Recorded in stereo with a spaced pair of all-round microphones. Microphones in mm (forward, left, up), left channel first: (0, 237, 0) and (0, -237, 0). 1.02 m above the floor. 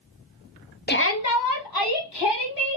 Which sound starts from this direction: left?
A shout, at 0.9 s.